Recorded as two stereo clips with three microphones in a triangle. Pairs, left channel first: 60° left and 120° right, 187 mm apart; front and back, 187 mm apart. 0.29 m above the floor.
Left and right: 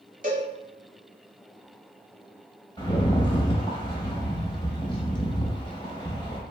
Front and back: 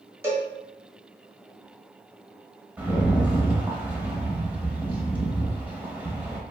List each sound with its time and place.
0.2 s a cowbell: 110° right, 0.8 m
2.8 s a rattle: 105° left, 0.6 m